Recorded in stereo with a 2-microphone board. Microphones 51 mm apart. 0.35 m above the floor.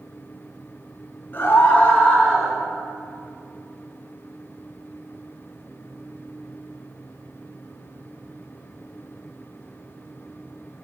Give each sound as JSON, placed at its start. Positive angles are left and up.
{"t": 1.3, "sound": "a scream", "side_deg": 45, "distance_m": 1.6}